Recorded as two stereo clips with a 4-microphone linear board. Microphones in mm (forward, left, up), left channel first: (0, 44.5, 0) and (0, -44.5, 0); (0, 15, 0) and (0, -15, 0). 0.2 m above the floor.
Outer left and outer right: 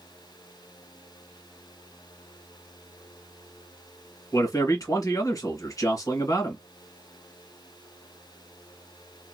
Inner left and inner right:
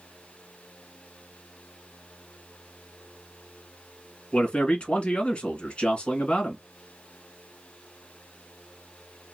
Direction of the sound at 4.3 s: 40° left (ahead or behind).